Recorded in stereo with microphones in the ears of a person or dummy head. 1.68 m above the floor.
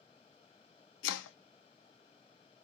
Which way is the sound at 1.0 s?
65° left (ahead or behind).